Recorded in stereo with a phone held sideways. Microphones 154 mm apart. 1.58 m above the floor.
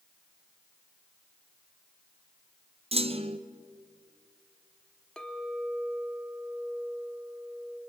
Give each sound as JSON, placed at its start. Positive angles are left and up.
{"t": 2.9, "sound": "a clunk", "side_deg": -40, "distance_m": 1.1}
{"t": 5.2, "sound": "a clink", "side_deg": 5, "distance_m": 1.9}